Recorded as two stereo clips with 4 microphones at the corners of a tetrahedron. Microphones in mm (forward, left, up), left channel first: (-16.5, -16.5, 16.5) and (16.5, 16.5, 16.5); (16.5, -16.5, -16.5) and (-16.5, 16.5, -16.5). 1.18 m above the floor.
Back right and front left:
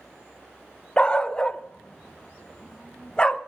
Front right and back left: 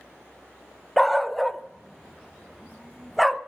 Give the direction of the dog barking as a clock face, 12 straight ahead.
4 o'clock.